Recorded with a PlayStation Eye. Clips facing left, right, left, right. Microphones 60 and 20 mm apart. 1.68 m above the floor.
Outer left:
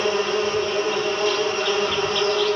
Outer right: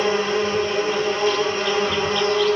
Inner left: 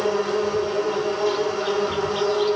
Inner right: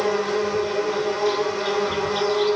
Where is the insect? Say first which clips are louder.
Outer right 1 dB, even; 30° right (ahead or behind), 1.8 m.